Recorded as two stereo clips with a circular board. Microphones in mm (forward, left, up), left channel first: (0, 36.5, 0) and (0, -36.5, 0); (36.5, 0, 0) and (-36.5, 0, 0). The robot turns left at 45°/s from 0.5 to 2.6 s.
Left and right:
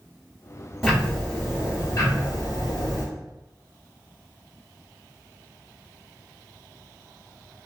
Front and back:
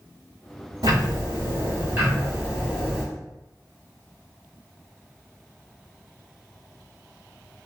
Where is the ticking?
175° right, 2 m; by 3.0 s 105° left, 2 m.